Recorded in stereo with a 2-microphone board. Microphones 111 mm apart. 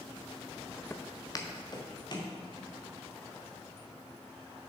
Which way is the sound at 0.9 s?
20° left (ahead or behind).